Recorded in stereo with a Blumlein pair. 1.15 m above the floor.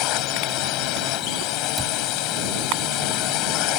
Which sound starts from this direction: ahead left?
A drone, at 0.0 s.